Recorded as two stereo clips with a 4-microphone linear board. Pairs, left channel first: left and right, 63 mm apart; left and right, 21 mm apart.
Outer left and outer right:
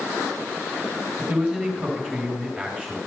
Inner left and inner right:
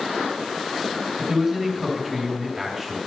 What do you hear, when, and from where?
1.2 s a man speaking: 5° left (ahead or behind), 3.5 m